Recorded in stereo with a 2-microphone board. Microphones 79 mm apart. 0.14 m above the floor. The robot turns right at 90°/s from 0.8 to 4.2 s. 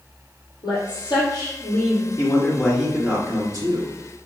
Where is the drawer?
I don't hear a drawer.